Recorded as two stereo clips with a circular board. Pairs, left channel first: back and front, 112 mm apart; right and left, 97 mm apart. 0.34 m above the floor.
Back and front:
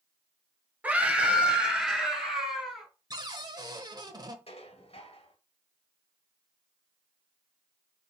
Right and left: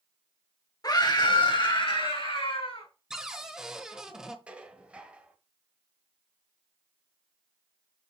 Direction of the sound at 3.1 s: 10° left.